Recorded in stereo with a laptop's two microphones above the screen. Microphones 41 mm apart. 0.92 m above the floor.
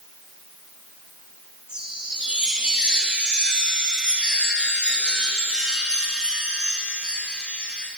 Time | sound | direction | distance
1.7 | a chime | 20° right (ahead or behind) | 6 m